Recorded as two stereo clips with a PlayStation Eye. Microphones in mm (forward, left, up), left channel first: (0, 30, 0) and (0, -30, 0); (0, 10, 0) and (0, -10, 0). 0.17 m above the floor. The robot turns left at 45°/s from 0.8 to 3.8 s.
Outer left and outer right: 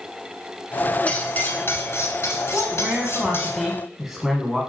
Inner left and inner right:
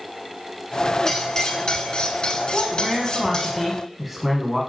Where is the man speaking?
20° right (ahead or behind), 1.0 m; by 4.6 s 5° right (ahead or behind), 1.0 m.